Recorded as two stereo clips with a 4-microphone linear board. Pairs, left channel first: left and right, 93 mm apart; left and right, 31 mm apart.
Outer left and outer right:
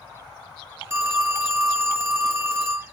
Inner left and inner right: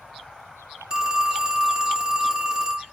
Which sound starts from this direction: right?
A phone ringing, at 0.9 s.